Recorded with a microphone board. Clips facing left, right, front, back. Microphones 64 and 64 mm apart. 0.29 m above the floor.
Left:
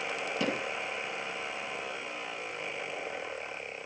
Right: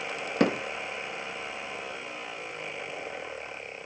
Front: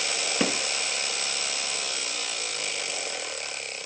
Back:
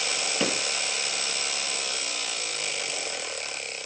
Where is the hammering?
65° right, 3.5 m.